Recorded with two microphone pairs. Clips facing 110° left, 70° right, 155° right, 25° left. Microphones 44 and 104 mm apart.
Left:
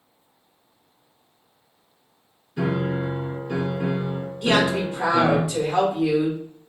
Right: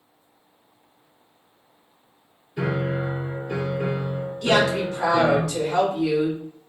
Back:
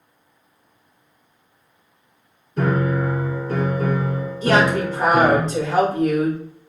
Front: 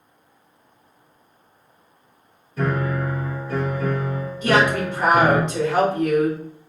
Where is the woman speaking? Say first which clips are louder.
Even, back 1 dB; 170° left, 1.7 m.